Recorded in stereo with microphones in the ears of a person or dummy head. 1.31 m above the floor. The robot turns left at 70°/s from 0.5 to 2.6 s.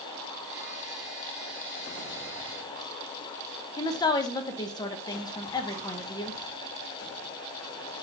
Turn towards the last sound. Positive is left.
turn(degrees=25)  # may be behind; listen again after turning